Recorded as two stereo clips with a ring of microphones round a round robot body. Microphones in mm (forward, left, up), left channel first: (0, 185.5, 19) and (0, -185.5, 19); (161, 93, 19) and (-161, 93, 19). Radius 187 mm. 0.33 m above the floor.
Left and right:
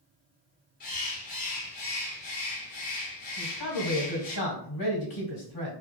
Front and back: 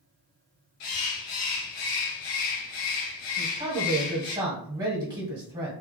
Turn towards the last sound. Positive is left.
turn(degrees=105)